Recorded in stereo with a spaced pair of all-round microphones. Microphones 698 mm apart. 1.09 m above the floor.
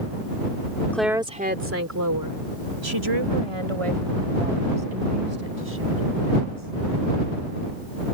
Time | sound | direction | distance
0.9 | a woman speaking | centre (ahead or behind) | ?